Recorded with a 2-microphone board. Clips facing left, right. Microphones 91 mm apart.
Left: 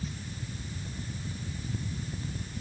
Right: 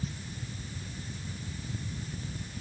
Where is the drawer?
I don't hear a drawer.